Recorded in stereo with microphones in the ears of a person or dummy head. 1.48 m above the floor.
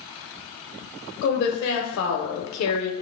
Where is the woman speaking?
60° left (ahead or behind), 1.3 m; by 2.9 s 70° left (ahead or behind), 0.8 m.